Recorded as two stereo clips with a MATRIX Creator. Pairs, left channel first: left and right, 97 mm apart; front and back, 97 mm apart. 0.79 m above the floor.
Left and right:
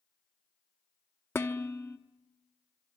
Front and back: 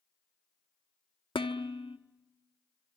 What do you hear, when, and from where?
1.4 s dishes clattering: 25° left, 1.0 m